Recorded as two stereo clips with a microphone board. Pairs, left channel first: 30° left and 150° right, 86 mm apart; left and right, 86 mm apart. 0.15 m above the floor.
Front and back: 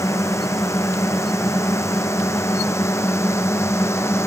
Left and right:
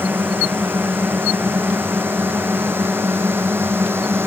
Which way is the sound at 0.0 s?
25° right.